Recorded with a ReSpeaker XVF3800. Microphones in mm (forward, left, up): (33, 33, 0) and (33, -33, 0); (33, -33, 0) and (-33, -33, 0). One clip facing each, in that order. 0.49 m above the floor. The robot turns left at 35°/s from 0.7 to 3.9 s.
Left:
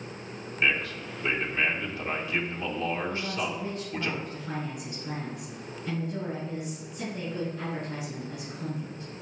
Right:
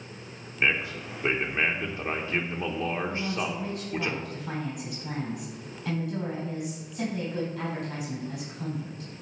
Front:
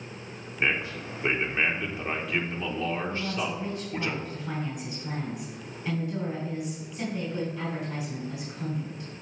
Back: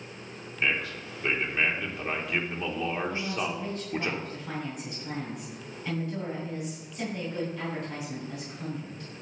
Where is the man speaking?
35° right, 1.0 m; by 4.1 s 150° right, 1.0 m.